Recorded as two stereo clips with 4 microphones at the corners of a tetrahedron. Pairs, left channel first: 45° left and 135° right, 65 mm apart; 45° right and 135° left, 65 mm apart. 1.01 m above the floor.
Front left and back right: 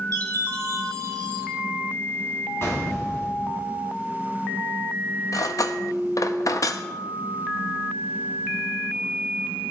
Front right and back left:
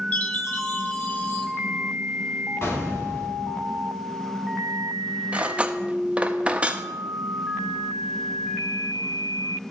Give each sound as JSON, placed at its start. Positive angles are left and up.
{"t": 0.1, "sound": "a chime", "azimuth_deg": -105, "distance_m": 1.6}
{"t": 2.6, "sound": "an explosion", "azimuth_deg": 0, "distance_m": 2.5}
{"t": 5.3, "sound": "cutlery clinking", "azimuth_deg": 65, "distance_m": 0.5}